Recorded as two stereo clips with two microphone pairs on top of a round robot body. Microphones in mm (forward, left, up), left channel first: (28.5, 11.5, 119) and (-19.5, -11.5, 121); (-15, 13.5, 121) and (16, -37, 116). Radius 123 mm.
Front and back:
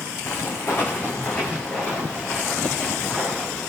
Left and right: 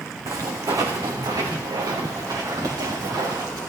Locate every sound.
0.3 s footsteps: 25° right, 2 m; by 3.6 s 50° right, 4 m